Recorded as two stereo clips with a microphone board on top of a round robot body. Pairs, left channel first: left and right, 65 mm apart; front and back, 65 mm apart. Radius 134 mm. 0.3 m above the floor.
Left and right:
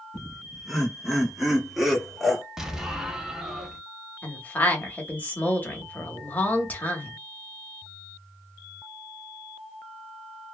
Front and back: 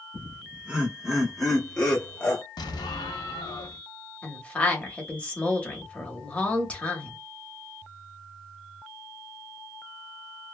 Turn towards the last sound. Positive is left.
turn(degrees=55)